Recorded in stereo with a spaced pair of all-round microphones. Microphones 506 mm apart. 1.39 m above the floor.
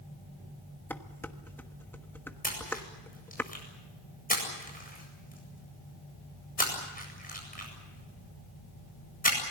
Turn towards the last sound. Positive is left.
turn(degrees=15)  # may be behind; listen again after turning